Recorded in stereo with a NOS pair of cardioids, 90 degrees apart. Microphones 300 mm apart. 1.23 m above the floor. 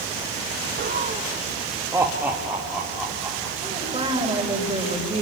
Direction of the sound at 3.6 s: 20° right.